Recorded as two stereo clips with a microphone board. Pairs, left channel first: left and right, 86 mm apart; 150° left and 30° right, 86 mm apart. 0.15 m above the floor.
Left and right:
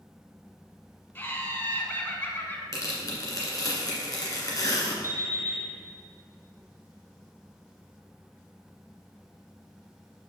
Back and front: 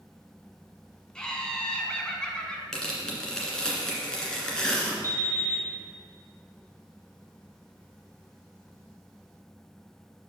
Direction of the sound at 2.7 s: 70° left.